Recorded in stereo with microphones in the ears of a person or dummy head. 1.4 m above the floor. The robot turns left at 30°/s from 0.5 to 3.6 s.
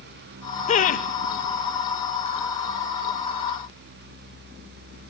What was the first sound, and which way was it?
Laughter, 40° left (ahead or behind).